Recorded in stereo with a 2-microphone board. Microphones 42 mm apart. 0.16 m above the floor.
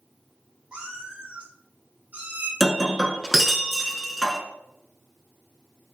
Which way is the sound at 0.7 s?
25° right (ahead or behind).